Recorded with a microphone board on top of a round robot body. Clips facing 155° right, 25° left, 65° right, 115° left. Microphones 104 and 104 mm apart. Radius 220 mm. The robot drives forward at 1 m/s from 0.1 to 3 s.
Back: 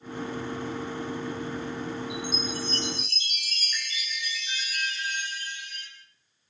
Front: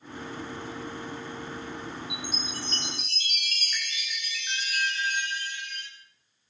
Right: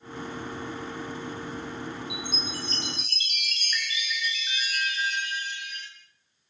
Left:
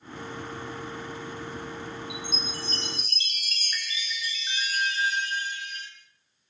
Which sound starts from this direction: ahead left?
A chime, at 2.1 s.